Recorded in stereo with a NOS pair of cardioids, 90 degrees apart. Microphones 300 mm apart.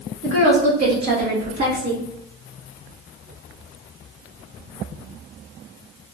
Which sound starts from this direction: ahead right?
A woman speaking, at 0.2 s.